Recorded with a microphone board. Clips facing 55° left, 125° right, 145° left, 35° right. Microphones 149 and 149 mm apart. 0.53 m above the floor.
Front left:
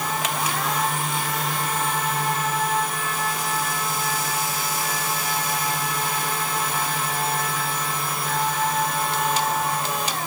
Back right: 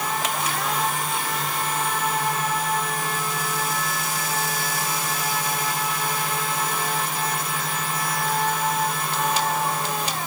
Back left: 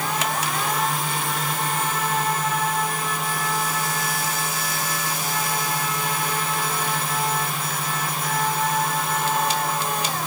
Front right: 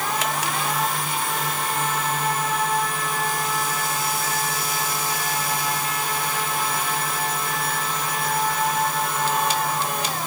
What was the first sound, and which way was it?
Only background noise.